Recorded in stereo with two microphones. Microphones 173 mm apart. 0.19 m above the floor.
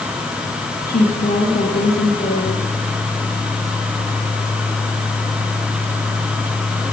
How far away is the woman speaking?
About 6 m.